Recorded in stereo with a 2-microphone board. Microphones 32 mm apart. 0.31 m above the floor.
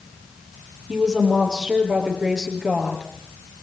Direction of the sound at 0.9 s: 25° right (ahead or behind).